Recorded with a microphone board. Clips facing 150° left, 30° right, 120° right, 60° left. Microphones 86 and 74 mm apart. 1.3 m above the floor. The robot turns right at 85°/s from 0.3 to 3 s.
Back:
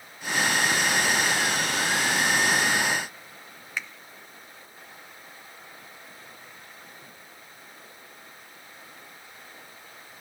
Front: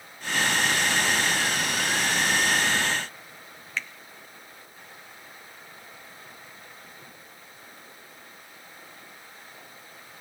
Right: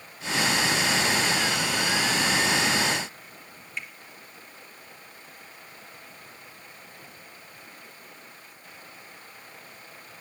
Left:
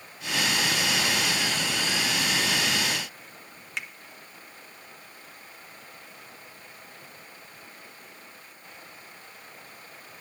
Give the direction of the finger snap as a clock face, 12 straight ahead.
10 o'clock.